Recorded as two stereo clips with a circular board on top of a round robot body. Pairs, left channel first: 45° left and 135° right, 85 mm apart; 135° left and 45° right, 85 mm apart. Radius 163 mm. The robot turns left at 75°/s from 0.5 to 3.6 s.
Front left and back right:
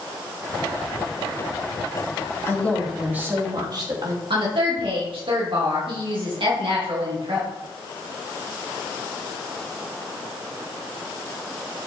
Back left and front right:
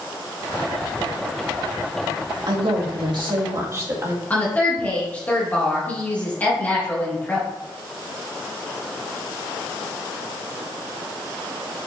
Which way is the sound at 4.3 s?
155° right.